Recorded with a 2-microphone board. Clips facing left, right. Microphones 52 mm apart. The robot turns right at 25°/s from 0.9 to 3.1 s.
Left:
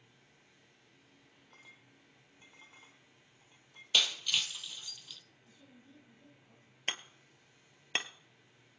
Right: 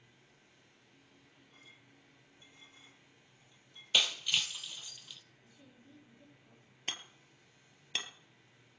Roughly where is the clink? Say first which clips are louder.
Left 3 dB; left.